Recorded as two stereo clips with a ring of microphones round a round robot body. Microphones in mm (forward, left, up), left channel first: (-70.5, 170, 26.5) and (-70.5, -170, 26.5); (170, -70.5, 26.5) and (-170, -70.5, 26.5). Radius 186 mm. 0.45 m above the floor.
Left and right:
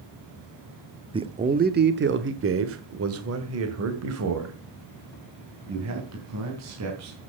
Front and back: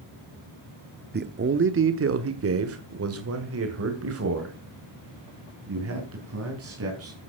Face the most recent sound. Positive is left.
turn(degrees=-130)